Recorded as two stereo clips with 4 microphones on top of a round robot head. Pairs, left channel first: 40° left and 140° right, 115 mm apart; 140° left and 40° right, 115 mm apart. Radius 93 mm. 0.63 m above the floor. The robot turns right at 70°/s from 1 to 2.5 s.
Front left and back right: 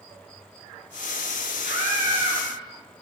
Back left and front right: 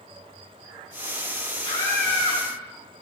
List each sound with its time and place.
1.6 s a scream: 170° right, 8 m; by 2.4 s 115° right, 8 m